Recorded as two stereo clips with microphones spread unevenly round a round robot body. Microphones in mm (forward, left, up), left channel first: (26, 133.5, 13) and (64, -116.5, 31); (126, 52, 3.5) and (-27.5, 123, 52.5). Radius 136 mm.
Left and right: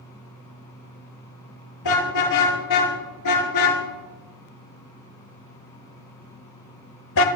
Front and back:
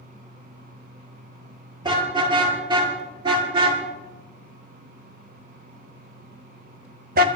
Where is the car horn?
90° left, 8 m; by 7.3 s 150° left, 1.3 m.